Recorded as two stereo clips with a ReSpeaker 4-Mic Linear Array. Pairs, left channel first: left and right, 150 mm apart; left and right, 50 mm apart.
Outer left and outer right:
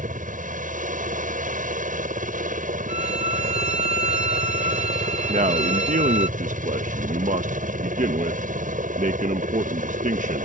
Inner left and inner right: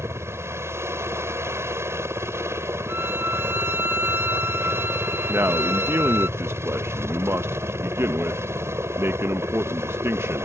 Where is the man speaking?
65° right (ahead or behind).